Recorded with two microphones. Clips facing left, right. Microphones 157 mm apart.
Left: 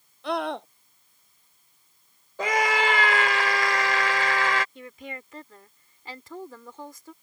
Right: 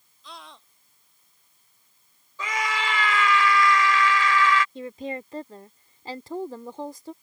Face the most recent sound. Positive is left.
turn(degrees=-35)  # may be behind; listen again after turning